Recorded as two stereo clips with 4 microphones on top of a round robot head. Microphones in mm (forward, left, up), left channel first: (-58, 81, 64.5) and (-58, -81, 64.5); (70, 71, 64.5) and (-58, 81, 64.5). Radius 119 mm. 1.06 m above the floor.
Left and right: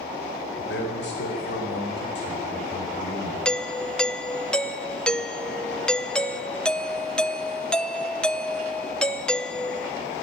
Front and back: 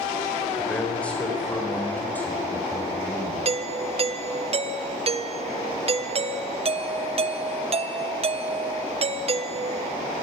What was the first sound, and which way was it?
A man speaking, 80° left.